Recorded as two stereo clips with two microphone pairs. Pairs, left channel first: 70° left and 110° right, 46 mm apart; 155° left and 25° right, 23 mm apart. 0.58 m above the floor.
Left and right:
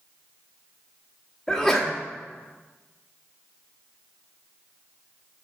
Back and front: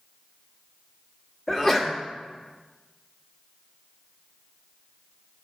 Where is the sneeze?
145° left, 1.2 m.